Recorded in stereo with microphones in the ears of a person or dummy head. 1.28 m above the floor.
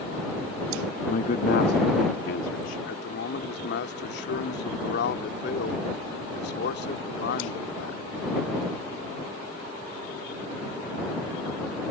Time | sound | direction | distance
1.1 | a man speaking | 45° left (ahead or behind) | ?
2.9 | a man speaking | 60° left (ahead or behind) | ?